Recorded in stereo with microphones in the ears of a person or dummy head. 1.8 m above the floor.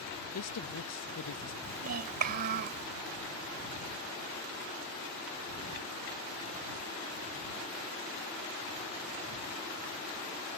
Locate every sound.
0.3 s a woman speaking: 80° left
1.6 s a child speaking: 50° right (ahead or behind)